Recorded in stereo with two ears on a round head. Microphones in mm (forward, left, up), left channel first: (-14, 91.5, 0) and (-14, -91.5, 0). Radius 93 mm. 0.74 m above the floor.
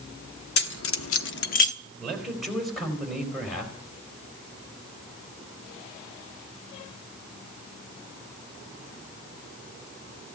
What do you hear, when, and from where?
0.6 s keys jangling: 50° left (ahead or behind), 1.1 m; by 1.7 s 35° left (ahead or behind), 1.1 m
2.0 s a man speaking: centre (ahead or behind), 4.5 m